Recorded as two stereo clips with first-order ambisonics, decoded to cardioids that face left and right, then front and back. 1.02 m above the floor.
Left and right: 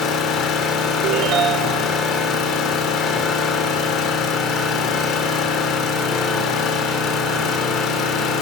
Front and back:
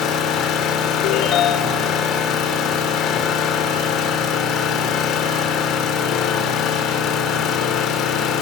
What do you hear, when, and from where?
0.0 s an engine running: 45° left, 2.5 m
1.0 s a ringtone: 45° right, 0.8 m